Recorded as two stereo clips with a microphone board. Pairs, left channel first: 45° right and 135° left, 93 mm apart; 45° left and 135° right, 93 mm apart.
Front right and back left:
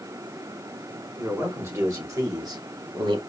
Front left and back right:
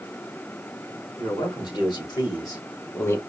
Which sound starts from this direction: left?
A man speaking, at 1.2 s.